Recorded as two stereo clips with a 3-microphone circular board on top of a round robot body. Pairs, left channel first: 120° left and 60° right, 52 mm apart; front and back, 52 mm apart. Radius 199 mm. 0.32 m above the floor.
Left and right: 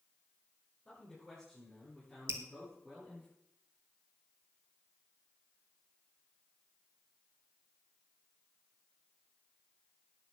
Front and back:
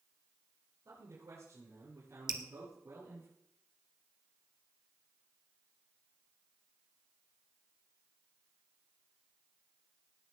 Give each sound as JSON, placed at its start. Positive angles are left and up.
{"t": 0.8, "sound": "a man speaking", "azimuth_deg": -150, "distance_m": 7.0}
{"t": 2.3, "sound": "dripping", "azimuth_deg": -95, "distance_m": 1.6}